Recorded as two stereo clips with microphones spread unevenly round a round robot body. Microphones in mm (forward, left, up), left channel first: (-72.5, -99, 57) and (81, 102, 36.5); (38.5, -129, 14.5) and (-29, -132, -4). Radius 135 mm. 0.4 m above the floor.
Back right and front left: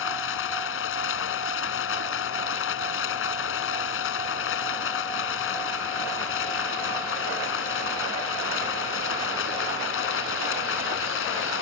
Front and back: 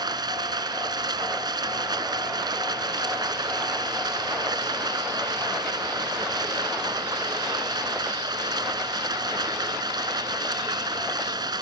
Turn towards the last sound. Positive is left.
turn(degrees=-170)